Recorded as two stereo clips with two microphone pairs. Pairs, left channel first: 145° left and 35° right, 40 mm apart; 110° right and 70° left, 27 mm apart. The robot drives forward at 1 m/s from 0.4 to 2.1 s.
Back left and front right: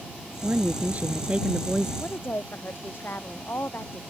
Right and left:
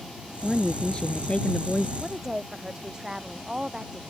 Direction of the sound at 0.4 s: 40° right.